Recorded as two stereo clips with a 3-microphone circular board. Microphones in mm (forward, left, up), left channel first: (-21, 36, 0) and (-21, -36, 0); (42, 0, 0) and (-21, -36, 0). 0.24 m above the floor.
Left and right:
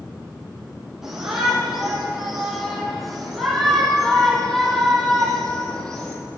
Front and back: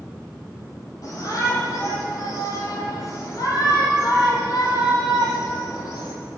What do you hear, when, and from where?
1.0 s a shout: 5° right, 10 m; by 6.2 s 10° left, 8.5 m